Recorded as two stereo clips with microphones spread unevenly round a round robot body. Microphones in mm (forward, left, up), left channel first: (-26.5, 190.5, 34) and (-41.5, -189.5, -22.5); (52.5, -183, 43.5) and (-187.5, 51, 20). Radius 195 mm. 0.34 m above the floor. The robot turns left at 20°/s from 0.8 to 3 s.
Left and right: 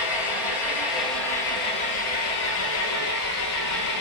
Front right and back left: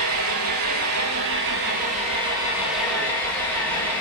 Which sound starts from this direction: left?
An engine running, at 0.0 s.